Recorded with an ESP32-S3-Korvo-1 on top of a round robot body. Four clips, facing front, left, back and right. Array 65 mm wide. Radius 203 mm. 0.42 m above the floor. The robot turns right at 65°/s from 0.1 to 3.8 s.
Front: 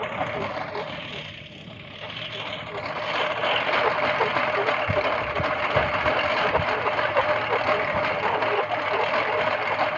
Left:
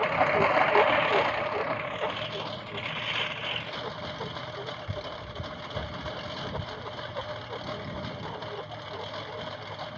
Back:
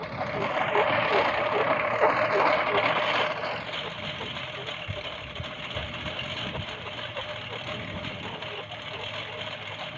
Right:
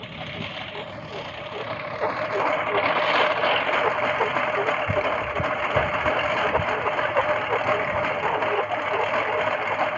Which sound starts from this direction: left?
A lawn mower, at 0.0 s.